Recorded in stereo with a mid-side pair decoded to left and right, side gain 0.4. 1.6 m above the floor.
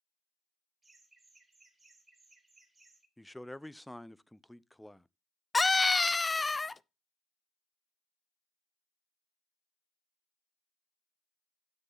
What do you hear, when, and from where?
0.8 s laughter: 30° right, 3.5 m
3.2 s a man speaking: straight ahead, 0.5 m
5.5 s a scream: 20° left, 0.5 m